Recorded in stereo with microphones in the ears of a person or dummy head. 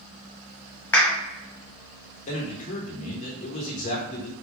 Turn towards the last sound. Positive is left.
turn(degrees=40)  # may be behind; listen again after turning